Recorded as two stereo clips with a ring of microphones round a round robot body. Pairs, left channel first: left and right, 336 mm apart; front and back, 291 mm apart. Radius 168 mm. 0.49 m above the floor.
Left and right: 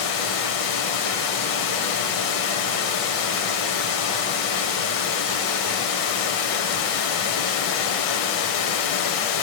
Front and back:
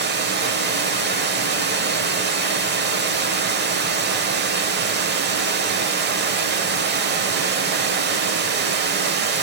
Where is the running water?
125° left, 0.9 m.